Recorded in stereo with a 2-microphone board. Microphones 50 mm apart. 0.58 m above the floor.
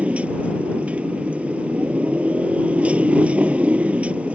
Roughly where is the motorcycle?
Right.